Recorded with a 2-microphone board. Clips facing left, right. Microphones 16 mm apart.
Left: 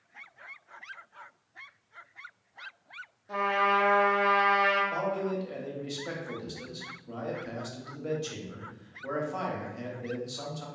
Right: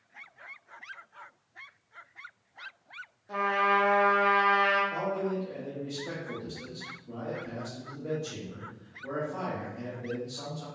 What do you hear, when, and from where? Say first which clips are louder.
3.3 s a trumpet: even; 5° right (ahead or behind), 0.5 m
4.9 s a man speaking: even; 35° left (ahead or behind), 0.7 m